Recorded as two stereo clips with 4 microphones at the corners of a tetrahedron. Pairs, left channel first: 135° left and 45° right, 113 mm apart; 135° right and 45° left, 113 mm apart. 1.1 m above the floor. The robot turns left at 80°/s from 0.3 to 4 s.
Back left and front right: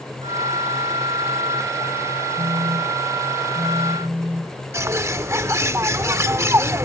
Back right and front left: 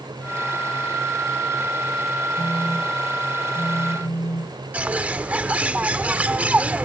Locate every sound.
2.4 s a phone buzzing: 5° right; by 4.6 s 135° right
4.7 s a bird: 15° right